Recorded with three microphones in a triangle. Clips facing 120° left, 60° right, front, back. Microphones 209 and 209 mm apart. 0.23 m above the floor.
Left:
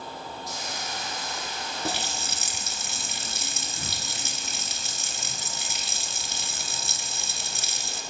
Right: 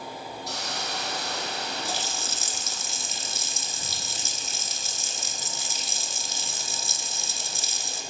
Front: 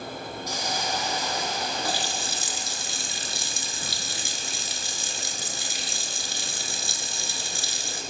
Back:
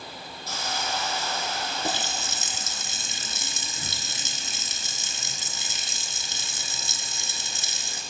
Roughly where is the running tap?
Behind left.